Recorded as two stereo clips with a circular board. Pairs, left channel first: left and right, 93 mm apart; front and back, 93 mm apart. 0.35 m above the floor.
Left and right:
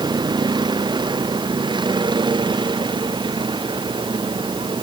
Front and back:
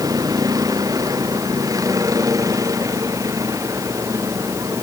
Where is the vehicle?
130° right; by 4.8 s 125° right.